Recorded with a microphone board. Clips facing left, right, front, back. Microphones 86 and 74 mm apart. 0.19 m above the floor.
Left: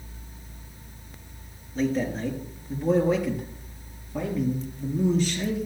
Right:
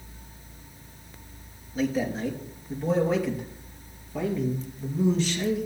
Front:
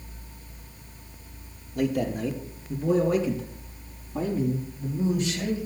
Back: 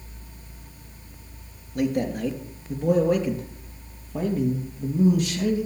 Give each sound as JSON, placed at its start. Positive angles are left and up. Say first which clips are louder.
{"t": 1.8, "sound": "a man speaking", "louder": "left 1 dB, back 1 dB", "azimuth_deg": -175, "distance_m": 3.0}